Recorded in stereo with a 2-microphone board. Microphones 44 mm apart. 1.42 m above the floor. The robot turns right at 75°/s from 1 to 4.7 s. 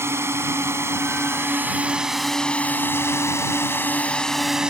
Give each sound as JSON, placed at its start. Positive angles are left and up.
{"t": 0.0, "sound": "a drone", "side_deg": -75}